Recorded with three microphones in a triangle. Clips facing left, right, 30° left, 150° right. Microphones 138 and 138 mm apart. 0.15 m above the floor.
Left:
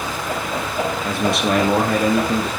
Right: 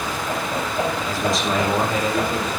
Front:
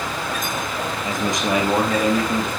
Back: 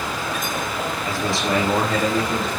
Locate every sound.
1.1 s a man speaking: 95° left, 3.5 m; by 2.5 s 115° left, 4.5 m